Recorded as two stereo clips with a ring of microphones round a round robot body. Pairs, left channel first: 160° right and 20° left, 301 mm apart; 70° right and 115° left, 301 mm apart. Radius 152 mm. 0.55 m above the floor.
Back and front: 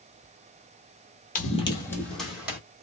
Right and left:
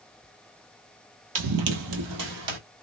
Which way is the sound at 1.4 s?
145° left.